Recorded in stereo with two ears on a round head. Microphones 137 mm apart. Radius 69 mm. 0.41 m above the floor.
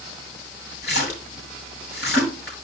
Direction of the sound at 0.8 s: 75° left (ahead or behind).